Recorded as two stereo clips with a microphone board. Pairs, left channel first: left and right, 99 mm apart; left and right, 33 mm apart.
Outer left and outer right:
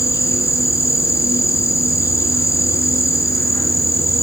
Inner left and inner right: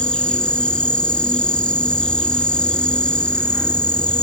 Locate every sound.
0.0 s an insect: 30° left (ahead or behind), 1.7 m